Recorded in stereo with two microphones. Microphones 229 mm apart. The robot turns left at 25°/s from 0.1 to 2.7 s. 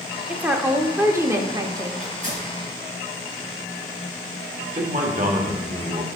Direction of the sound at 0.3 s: 5° right (ahead or behind).